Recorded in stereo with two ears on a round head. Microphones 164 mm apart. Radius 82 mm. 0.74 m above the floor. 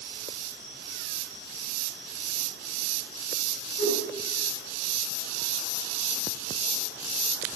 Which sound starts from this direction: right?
A whoosh, at 3.8 s.